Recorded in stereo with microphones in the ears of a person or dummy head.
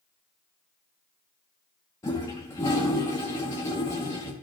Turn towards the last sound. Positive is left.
turn(degrees=15)  # may be behind; listen again after turning